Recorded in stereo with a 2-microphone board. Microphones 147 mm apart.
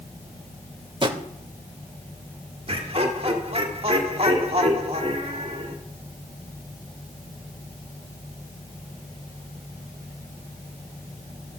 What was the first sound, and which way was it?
A drawer, 35° right (ahead or behind).